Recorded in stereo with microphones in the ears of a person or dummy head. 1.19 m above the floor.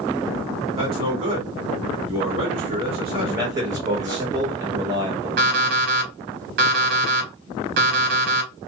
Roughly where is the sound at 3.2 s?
Centre.